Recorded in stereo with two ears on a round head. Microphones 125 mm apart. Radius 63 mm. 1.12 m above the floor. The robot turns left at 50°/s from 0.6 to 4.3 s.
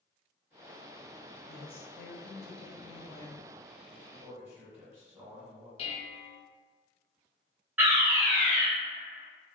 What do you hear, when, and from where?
1.5 s a woman speaking: 105° left, 0.7 m; by 3.4 s 5° left, 0.7 m
4.1 s a man speaking: 25° right (ahead or behind), 1.4 m; by 5.7 s 15° right (ahead or behind), 1.4 m
5.8 s dishes clattering: 45° left (ahead or behind), 0.6 m
7.8 s a fire alarm: 15° right (ahead or behind), 1.8 m